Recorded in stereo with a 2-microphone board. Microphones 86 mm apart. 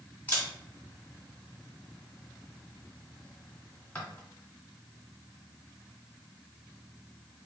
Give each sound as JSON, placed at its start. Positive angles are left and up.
{"t": 0.3, "sound": "a camera shutter", "side_deg": 15, "distance_m": 1.3}